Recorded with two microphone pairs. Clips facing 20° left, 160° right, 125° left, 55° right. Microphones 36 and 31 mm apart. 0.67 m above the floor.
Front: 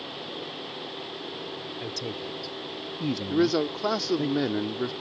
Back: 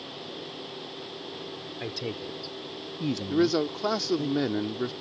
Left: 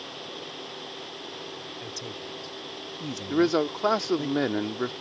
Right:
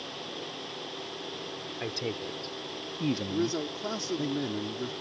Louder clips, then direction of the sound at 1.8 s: Back 2 dB, right 3 dB; 100° right.